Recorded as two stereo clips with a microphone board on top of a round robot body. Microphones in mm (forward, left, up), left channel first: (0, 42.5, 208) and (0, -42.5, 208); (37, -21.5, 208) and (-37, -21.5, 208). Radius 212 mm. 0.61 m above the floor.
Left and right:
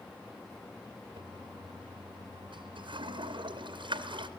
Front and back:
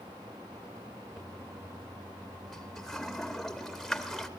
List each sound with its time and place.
1.2 s a toilet flushing: 85° right, 2.5 m